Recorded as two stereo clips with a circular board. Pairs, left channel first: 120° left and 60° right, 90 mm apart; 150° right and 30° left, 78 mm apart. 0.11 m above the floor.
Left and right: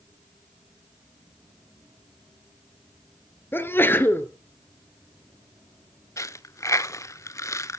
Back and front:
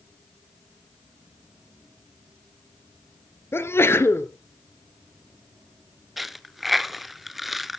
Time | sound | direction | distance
3.5 | a sneeze | 175° left | 1.7 m
6.2 | a dropped coin | 115° left | 0.6 m